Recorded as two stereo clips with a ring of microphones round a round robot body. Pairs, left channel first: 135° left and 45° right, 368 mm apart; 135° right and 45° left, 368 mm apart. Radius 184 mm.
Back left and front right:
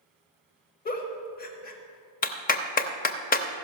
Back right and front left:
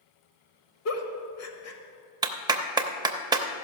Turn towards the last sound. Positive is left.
turn(degrees=110)